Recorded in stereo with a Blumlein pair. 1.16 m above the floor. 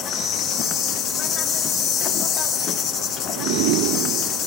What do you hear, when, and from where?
0.0 s an insect: 25° left, 0.7 m